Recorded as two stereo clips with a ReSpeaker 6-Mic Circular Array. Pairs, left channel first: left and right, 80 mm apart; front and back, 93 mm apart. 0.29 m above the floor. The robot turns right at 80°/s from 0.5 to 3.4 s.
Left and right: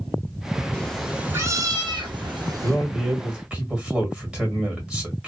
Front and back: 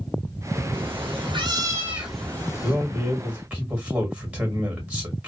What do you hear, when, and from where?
0.7 s a cat meowing: 155° left, 1.0 m; by 2.8 s 40° right, 1.0 m
2.6 s a man speaking: 155° left, 1.2 m; by 5.3 s 140° right, 1.2 m